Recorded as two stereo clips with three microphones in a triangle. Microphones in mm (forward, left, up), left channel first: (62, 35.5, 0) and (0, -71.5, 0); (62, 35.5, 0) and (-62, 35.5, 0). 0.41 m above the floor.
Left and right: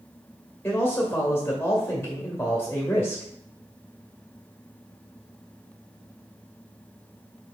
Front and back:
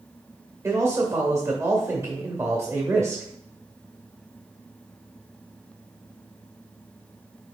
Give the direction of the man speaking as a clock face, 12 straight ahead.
8 o'clock.